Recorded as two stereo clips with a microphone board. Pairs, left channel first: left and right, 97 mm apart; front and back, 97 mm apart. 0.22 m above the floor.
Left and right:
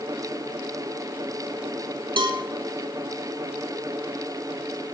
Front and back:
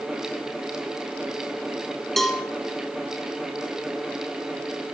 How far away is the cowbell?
About 0.8 m.